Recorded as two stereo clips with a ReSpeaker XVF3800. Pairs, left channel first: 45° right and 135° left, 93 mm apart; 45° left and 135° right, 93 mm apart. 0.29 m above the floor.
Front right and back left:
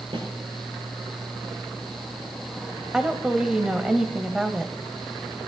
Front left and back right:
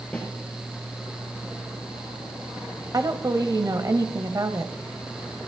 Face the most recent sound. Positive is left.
turn(degrees=-145)